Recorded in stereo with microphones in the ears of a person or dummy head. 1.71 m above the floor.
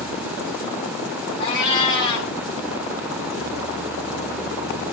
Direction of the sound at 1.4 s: 25° left (ahead or behind).